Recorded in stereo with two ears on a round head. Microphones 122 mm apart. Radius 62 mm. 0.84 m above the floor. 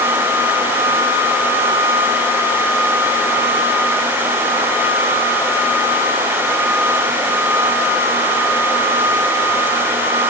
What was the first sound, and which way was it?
Only background noise.